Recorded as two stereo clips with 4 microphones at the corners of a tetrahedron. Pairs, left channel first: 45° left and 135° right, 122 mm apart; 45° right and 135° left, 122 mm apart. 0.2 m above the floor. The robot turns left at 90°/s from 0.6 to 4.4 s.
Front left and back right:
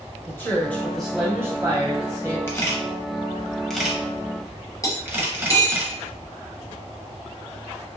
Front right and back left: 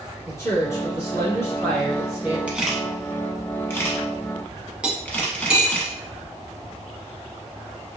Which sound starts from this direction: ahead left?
Cutlery clinking, at 4.8 s.